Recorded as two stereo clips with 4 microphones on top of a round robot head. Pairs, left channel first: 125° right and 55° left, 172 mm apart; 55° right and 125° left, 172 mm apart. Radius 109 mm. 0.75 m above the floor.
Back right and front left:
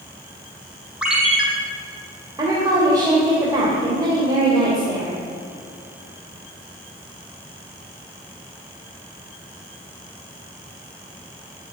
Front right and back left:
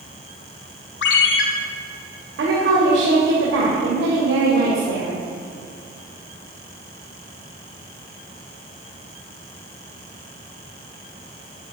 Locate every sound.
1.0 s a ringtone: 35° right, 2.5 m
2.4 s a woman speaking: 120° left, 3 m